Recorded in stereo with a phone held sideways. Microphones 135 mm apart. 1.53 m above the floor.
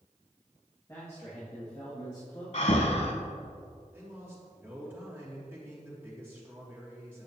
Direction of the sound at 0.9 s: 20° left (ahead or behind).